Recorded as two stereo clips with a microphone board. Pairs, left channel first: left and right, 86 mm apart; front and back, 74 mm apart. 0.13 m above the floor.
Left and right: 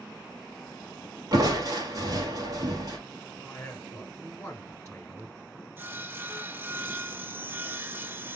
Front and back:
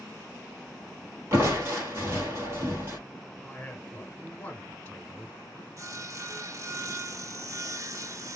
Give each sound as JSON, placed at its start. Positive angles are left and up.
{"t": 1.3, "sound": "crushing", "azimuth_deg": -130, "distance_m": 2.5}
{"t": 3.4, "sound": "a man speaking", "azimuth_deg": 45, "distance_m": 1.1}
{"t": 5.8, "sound": "sawing", "azimuth_deg": -150, "distance_m": 0.6}